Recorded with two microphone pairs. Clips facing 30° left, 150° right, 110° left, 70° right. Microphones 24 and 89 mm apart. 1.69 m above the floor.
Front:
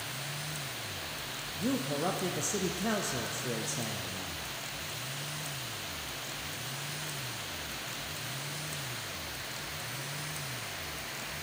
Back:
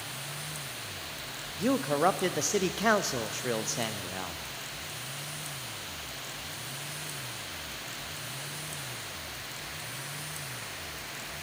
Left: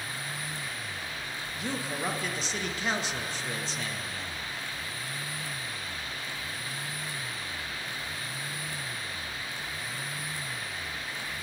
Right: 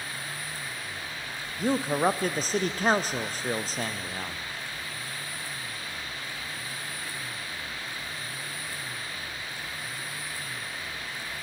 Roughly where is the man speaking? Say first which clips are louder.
Back 6 dB, right 9 dB; behind right.